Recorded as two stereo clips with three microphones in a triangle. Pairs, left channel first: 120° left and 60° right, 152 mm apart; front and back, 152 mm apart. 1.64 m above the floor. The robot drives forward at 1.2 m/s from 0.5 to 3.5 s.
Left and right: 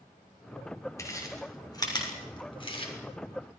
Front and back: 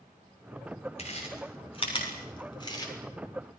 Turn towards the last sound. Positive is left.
turn(degrees=70)